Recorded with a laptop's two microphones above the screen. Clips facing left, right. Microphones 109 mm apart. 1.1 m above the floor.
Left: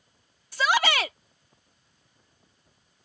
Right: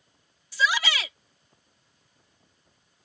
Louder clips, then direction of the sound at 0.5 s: Left 3 dB; 50° left (ahead or behind).